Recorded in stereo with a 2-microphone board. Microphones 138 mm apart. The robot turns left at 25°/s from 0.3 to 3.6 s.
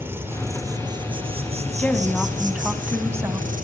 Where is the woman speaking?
15° left, 2 m; by 3.5 s 30° right, 2 m.